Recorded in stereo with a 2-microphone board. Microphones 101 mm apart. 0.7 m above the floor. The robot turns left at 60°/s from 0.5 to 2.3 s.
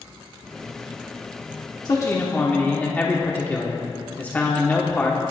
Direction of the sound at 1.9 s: 40° left (ahead or behind).